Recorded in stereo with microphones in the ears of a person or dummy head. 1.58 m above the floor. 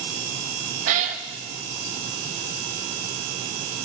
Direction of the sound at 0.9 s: 50° right (ahead or behind).